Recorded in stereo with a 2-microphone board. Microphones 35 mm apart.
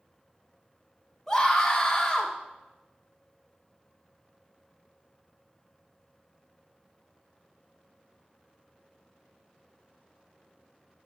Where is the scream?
5° left (ahead or behind), 1.4 m.